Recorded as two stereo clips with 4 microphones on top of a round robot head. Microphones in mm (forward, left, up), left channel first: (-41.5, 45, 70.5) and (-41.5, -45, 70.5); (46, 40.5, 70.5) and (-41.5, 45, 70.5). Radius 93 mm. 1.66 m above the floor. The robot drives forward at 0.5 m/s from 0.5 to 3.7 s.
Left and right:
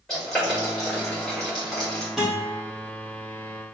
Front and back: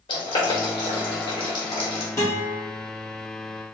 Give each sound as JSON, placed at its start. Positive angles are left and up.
{"t": 0.1, "sound": "boiling", "azimuth_deg": 5, "distance_m": 2.0}
{"t": 2.2, "sound": "a guitar", "azimuth_deg": -5, "distance_m": 1.0}